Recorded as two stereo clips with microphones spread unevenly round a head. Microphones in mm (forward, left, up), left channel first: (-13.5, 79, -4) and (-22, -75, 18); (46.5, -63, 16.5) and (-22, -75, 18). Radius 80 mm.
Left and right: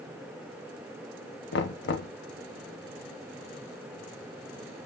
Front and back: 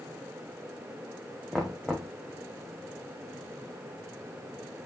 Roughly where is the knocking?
Left.